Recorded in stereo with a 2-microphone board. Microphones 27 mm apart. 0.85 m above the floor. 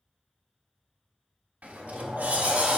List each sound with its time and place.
1.6 s a sliding door: 70° right (ahead or behind), 0.6 m